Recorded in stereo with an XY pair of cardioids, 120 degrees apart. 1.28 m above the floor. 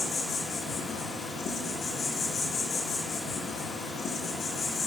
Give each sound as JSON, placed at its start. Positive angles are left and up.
{"t": 0.0, "sound": "an insect", "azimuth_deg": 55, "distance_m": 1.6}